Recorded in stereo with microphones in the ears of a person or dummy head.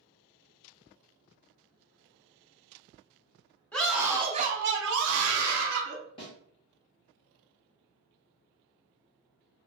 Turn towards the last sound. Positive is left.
turn(degrees=25)  # may be behind; listen again after turning